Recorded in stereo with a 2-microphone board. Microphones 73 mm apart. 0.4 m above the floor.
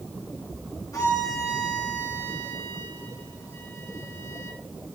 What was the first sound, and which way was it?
A violin, 55° left (ahead or behind).